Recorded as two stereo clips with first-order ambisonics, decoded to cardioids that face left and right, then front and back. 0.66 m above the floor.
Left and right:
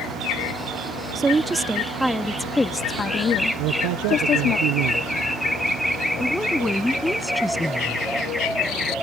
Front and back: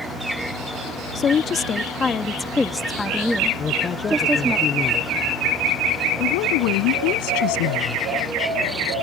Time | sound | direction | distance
1.1 | a woman speaking | 30° right | ?
3.6 | a man speaking | 65° right | ?
6.2 | a woman speaking | 5° left | ?